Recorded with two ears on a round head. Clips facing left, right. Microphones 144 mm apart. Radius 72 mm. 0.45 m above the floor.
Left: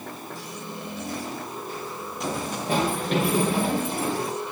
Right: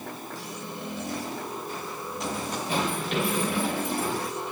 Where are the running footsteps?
40° left (ahead or behind), 7.5 m; by 4.3 s 25° left (ahead or behind), 8.5 m.